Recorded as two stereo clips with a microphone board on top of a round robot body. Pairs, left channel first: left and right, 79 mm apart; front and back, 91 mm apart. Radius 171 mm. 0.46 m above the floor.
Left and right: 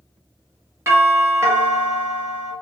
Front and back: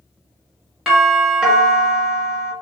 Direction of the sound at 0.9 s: 100° right.